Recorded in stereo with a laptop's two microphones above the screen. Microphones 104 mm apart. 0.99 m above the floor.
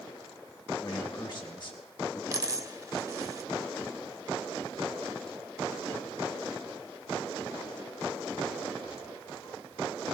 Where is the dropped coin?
35° right (ahead or behind), 0.9 m.